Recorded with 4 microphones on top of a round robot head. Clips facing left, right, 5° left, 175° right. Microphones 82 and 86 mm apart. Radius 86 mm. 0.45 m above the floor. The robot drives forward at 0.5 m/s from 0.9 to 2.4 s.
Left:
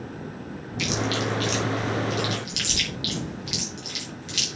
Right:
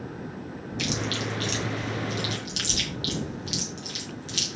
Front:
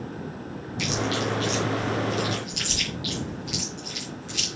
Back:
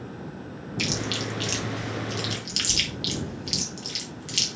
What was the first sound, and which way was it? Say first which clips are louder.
Chewing: left 4 dB, front 4 dB; 140° right.